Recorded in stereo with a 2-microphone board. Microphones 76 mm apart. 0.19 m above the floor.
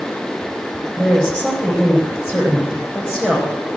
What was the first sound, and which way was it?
A woman speaking, 25° left (ahead or behind).